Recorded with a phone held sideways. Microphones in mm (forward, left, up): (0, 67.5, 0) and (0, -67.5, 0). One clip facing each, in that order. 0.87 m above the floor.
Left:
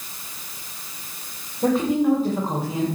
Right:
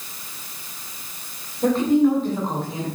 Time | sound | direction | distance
1.6 | a woman speaking | 5° left (ahead or behind) | 3 m